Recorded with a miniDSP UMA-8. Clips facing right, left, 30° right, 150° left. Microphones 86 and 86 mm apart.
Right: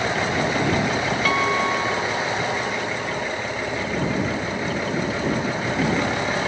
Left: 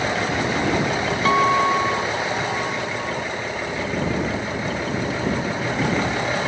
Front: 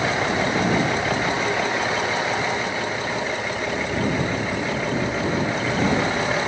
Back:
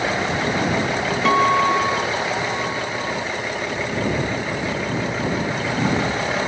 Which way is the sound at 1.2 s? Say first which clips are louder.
Left 6 dB, back 7 dB; 155° left.